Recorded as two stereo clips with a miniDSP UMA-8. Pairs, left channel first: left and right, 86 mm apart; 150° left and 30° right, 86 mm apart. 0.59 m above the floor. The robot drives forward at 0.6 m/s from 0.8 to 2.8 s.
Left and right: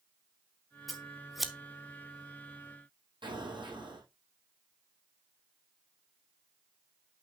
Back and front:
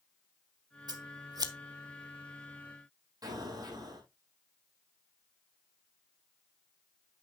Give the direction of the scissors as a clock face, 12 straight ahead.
12 o'clock.